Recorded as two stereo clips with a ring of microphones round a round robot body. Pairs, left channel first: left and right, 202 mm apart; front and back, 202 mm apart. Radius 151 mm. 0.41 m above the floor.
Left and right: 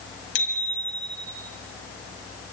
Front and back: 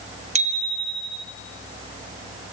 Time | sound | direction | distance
0.3 | a bicycle bell | 120° left | 2.5 m